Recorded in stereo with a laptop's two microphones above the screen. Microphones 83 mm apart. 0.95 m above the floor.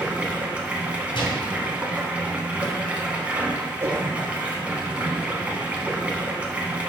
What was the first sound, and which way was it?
Running water, 15° right (ahead or behind).